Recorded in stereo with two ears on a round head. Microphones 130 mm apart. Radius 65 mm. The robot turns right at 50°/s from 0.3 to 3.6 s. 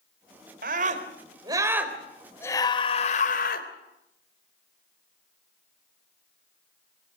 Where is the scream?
70° right, 3.5 m; by 3.7 s 75° left, 3.5 m.